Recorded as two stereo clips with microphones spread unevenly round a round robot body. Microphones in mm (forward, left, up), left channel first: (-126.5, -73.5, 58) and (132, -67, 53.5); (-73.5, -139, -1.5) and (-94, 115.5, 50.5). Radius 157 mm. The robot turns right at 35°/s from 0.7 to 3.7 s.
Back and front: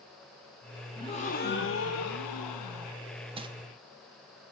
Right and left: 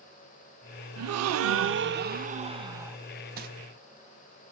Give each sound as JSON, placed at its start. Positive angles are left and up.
{"t": 1.0, "sound": "a gasp", "azimuth_deg": 105, "distance_m": 0.5}
{"t": 3.4, "sound": "crumpling", "azimuth_deg": 50, "distance_m": 0.6}